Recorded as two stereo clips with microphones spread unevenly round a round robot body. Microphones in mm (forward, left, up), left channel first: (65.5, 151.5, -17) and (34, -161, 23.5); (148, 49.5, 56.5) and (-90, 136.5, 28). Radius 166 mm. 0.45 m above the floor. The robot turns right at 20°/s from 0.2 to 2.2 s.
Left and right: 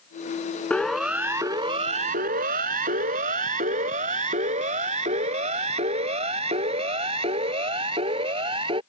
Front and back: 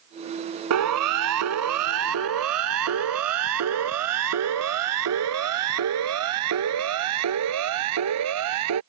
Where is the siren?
170° left; by 8.8 s 170° right.